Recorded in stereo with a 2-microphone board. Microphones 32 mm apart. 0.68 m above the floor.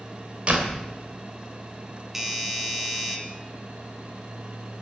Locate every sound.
0.5 s a door slam: 35° right (ahead or behind), 2.5 m
2.1 s a doorbell: 10° right (ahead or behind), 2 m